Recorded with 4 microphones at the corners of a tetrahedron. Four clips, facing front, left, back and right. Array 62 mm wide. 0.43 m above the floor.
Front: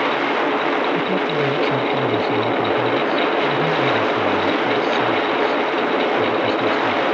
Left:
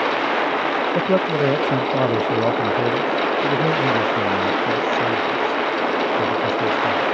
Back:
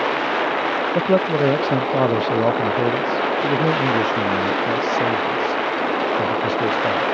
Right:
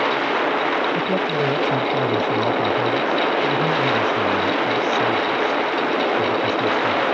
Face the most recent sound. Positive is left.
turn(degrees=165)